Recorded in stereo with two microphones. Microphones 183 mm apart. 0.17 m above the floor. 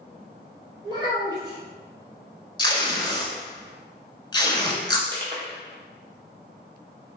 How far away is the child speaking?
About 1.7 m.